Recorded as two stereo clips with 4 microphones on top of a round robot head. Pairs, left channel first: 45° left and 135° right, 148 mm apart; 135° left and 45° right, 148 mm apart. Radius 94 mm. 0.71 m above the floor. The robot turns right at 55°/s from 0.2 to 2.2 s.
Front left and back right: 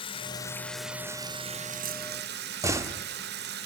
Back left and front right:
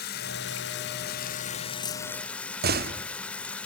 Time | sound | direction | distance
0.0 | running water | 105° left | 0.8 m
2.6 | a door slam | 60° right | 1.0 m